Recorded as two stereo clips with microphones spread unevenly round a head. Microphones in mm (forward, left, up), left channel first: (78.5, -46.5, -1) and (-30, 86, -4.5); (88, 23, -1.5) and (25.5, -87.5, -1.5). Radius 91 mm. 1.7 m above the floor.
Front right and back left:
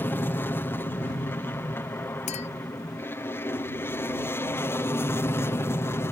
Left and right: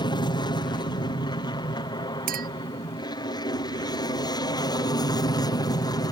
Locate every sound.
0.0 s an aircraft: 20° left
2.3 s a clink: 110° right